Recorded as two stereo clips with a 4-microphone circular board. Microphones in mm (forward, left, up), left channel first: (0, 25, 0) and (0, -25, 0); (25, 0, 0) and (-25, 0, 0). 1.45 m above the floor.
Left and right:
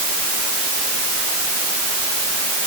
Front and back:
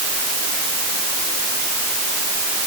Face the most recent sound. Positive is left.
No sound to turn to.